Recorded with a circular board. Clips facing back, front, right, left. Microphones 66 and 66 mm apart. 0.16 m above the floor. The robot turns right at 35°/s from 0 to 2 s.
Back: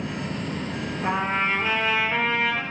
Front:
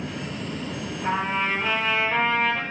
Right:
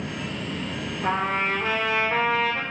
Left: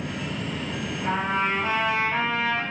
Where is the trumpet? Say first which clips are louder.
Even, right 1 dB; 135° right, 3 m; by 2.6 s 100° right, 3 m.